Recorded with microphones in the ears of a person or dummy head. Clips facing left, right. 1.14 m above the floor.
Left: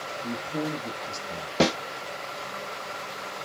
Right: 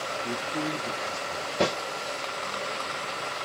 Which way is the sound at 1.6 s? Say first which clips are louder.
Left 3 dB; 85° left.